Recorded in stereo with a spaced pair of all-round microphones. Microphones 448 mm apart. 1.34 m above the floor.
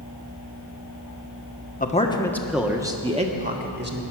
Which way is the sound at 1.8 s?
20° left (ahead or behind).